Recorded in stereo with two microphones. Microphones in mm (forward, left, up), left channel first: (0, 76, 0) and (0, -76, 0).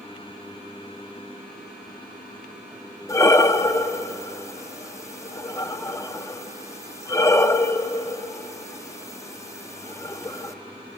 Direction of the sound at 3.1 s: 20° left (ahead or behind).